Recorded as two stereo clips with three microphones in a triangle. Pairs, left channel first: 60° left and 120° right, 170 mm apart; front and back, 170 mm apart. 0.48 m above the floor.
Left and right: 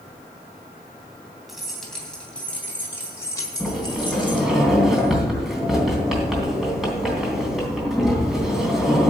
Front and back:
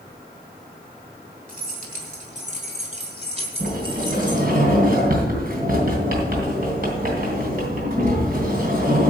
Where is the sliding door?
150° left, 3 m.